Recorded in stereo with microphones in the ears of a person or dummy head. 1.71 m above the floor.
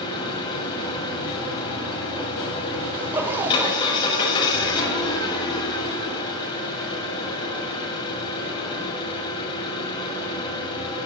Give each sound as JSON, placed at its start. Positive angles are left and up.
{"t": 0.0, "sound": "an engine running", "side_deg": 30, "distance_m": 4.5}
{"t": 2.9, "sound": "a zipper", "side_deg": -10, "distance_m": 1.2}